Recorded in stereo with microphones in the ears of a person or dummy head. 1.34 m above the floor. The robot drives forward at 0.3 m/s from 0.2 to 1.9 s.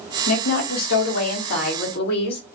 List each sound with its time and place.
0.3 s a woman speaking: 85° left, 1.3 m; by 2.5 s 70° left (ahead or behind), 1.4 m